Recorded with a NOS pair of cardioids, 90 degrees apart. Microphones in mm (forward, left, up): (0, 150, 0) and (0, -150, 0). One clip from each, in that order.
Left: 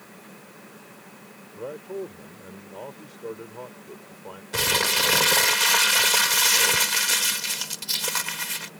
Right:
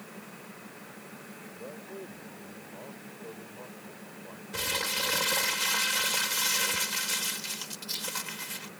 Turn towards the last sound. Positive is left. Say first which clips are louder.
# left 9 dB
turn(degrees=55)